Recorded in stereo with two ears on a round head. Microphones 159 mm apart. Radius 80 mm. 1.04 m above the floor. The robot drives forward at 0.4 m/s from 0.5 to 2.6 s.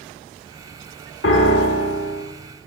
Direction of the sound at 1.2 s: 70° left (ahead or behind).